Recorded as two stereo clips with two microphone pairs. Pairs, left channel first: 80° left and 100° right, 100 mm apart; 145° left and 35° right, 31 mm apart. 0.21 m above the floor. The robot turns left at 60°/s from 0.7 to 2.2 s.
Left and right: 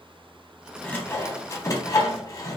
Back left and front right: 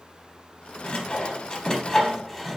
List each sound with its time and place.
0.8 s sawing: 150° left, 0.7 m; by 2.6 s 70° left, 0.7 m